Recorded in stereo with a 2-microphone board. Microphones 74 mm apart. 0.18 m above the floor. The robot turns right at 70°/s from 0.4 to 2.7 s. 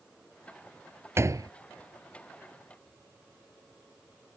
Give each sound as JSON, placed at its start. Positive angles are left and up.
{"t": 1.2, "sound": "a door slam", "side_deg": -35}